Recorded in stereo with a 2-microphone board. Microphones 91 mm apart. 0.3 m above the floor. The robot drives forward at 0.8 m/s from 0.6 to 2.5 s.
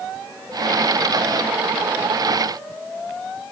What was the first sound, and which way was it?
Only background noise.